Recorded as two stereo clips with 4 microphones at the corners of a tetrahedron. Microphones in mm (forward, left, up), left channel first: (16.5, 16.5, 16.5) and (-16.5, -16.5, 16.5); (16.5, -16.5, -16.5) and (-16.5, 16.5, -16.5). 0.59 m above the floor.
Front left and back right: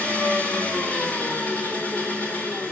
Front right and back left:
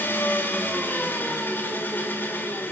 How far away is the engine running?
About 1.9 m.